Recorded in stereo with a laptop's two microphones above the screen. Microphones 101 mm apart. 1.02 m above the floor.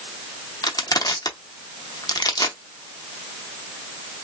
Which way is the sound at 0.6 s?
40° left (ahead or behind).